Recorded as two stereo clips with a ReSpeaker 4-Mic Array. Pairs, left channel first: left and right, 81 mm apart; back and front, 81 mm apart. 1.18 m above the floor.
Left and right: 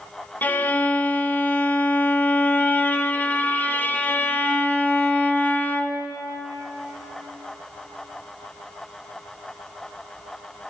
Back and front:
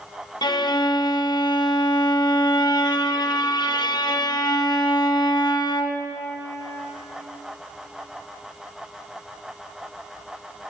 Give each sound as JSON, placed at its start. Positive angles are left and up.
{"t": 0.4, "sound": "a violin", "azimuth_deg": 155, "distance_m": 0.7}